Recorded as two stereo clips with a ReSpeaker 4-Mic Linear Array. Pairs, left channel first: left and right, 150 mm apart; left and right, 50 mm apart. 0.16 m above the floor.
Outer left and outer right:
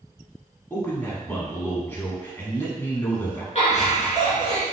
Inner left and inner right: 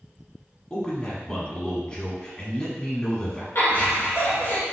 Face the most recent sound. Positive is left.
turn(degrees=50)  # may be behind; listen again after turning